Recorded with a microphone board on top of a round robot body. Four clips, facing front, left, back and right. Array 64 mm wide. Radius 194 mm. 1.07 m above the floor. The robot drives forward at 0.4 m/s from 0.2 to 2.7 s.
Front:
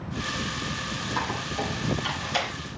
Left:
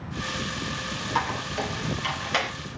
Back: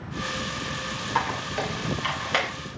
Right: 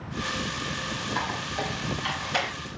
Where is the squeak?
155° left, 2 m; by 2.5 s 160° left, 2.5 m.